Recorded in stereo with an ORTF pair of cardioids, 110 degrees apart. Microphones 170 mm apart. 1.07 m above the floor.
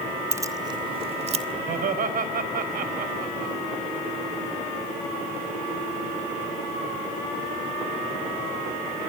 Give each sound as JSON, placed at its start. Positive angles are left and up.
{"t": 0.3, "sound": "keys jangling", "azimuth_deg": -15, "distance_m": 2.0}
{"t": 1.7, "sound": "laughter", "azimuth_deg": -60, "distance_m": 4.5}